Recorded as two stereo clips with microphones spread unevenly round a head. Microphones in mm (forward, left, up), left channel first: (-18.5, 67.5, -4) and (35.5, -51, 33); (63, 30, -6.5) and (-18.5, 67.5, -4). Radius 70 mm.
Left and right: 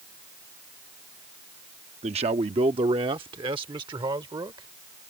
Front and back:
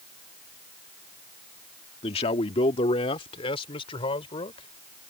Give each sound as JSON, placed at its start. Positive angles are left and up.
{"t": 2.0, "sound": "a man speaking", "azimuth_deg": -20}